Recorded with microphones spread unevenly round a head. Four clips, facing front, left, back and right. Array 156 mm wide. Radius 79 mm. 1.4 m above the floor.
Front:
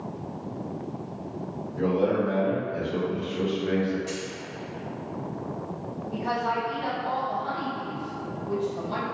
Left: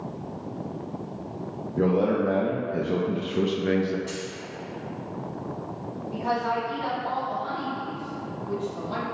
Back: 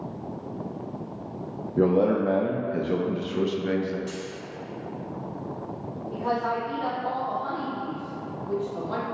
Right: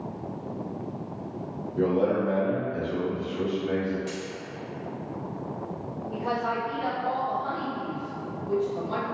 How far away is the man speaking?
About 0.9 m.